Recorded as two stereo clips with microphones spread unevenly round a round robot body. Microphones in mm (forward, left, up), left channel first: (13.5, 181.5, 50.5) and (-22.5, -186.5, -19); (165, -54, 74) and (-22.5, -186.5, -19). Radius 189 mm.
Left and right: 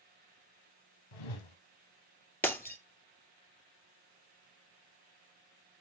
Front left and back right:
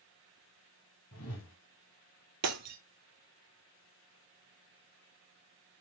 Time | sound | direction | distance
1.1 | a whoosh | 85° left | 1.7 m
2.4 | breaking glass | 165° left | 0.6 m